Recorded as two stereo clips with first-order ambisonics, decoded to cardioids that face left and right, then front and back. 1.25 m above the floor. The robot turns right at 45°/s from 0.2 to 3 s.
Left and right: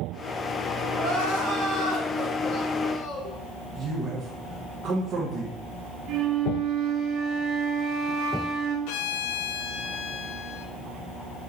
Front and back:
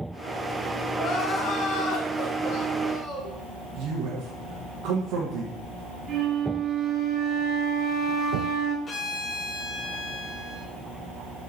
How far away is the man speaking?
About 1.3 m.